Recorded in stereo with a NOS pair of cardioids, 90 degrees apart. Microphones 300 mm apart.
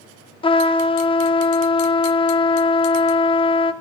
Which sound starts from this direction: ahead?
A trumpet, at 0.4 s.